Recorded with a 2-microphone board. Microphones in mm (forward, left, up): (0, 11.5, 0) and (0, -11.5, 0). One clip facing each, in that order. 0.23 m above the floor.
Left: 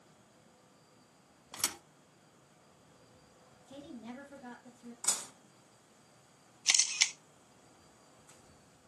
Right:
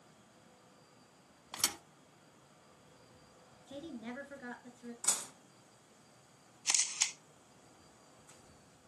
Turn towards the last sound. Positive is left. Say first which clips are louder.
# left 5 dB
turn(degrees=45)  # may be behind; listen again after turning